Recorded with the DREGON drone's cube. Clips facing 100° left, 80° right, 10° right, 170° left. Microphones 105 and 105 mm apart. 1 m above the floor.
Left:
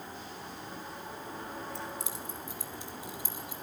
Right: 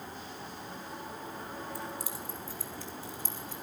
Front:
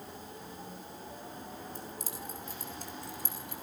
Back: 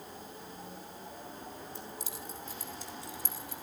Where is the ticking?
No ticking in this recording.